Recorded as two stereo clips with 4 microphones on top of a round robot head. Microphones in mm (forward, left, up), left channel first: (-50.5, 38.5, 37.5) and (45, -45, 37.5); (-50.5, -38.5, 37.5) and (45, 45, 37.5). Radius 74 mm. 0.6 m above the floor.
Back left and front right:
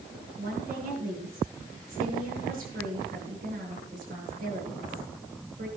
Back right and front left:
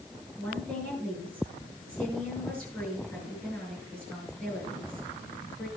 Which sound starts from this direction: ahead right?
A woman speaking, at 0.4 s.